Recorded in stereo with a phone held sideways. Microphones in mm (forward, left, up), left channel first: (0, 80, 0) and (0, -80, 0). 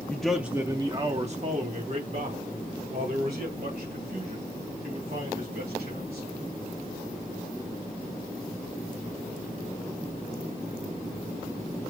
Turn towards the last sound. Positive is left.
turn(degrees=-80)